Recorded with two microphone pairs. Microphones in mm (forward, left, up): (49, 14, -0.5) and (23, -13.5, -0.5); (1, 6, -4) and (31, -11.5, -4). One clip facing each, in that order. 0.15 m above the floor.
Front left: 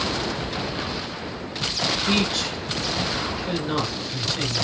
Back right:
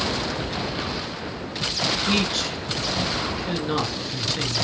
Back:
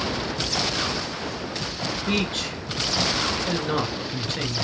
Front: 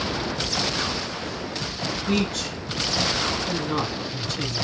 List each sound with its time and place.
2.1 s a man speaking: 145° left, 2 m